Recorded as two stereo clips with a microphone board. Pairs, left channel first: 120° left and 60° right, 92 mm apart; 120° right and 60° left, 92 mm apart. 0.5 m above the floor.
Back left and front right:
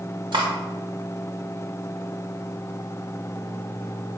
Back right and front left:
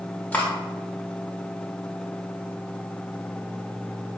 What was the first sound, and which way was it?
Cutlery clinking, 50° right.